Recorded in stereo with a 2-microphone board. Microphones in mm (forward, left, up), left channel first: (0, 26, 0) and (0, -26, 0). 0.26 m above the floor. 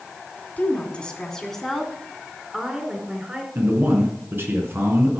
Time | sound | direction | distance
0.6 | a woman speaking | 30° left (ahead or behind) | 1.8 m
3.5 | a man speaking | 45° right (ahead or behind) | 3 m